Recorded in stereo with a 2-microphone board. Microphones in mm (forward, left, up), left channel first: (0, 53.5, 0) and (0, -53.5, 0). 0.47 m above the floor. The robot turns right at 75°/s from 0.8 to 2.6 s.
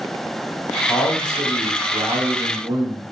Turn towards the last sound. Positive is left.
turn(degrees=-40)